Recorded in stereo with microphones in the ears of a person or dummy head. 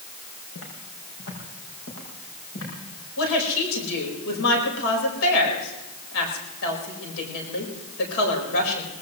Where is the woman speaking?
85° left, 4.5 m.